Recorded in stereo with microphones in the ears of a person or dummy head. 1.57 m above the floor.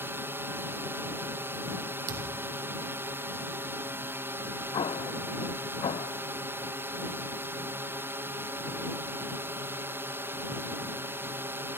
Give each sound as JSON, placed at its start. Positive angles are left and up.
{"t": 0.0, "sound": "a drone", "side_deg": -10}
{"t": 2.1, "sound": "a thud", "side_deg": -65}
{"t": 4.7, "sound": "an explosion", "side_deg": 35}